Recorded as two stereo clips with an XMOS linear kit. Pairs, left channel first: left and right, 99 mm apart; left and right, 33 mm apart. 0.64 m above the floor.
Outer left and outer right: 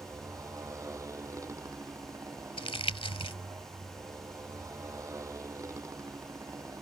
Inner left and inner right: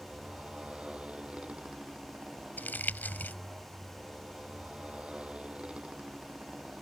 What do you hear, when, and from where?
0.0 s a motorcycle: 35° right (ahead or behind)
2.6 s crumpling: 75° left (ahead or behind)